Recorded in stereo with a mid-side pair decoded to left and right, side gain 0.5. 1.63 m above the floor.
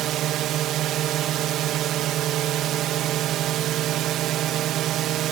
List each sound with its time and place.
0.0 s a drone: 70° right